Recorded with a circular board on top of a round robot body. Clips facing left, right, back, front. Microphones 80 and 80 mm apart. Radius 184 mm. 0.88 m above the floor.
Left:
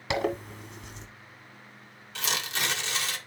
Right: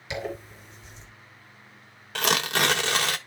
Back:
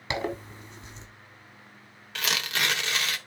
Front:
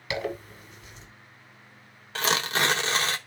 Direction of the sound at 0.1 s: 120° left.